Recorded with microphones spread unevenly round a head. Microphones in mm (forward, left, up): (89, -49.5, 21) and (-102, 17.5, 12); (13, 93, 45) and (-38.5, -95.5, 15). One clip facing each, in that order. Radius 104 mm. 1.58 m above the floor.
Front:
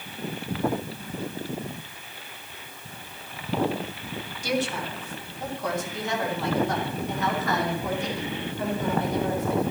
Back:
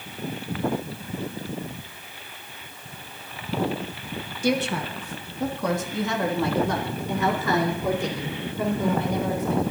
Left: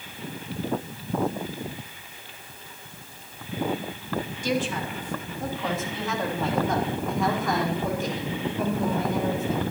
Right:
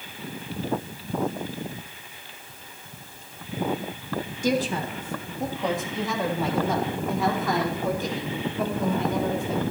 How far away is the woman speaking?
About 1.7 m.